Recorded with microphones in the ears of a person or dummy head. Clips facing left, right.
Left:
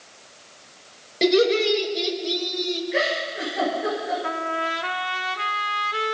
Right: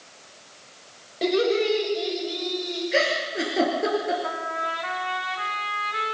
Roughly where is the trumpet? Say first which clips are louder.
Left 3 dB; left.